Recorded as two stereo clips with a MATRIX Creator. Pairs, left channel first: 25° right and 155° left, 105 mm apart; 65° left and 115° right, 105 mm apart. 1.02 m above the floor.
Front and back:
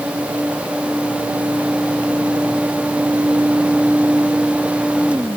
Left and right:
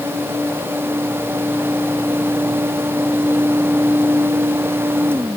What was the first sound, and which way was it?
Only background noise.